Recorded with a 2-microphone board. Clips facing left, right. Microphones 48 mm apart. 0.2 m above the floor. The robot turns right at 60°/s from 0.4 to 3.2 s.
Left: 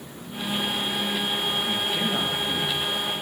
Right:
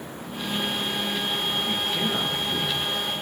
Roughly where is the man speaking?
Ahead.